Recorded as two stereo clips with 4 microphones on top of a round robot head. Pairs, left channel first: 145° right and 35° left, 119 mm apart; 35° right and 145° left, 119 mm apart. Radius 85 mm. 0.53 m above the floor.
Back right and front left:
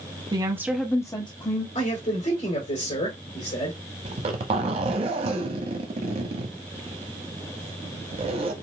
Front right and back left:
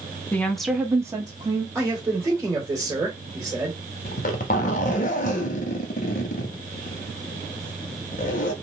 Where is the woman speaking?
35° left, 1.0 m; by 1.6 s 165° right, 1.4 m.